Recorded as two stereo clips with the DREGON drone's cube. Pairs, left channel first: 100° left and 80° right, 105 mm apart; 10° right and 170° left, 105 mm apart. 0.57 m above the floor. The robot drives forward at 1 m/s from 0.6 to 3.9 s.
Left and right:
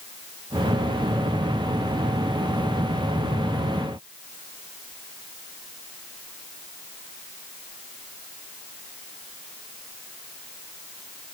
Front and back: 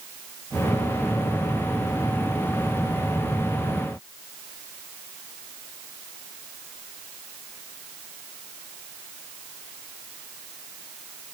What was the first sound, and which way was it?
Only background noise.